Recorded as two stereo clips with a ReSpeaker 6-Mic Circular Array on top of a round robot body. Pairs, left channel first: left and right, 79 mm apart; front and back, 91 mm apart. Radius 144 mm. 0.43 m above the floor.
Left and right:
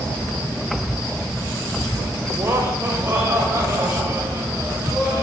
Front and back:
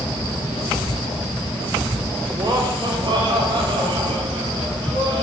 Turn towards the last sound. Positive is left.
turn(degrees=-150)